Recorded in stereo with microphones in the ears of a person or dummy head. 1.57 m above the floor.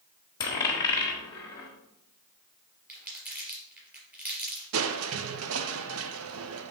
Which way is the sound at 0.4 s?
20° left (ahead or behind).